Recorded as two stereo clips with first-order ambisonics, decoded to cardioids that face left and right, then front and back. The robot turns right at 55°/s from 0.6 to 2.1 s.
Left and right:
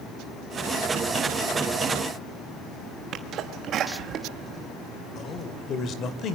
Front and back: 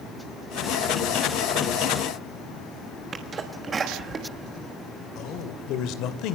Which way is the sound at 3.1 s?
120° right.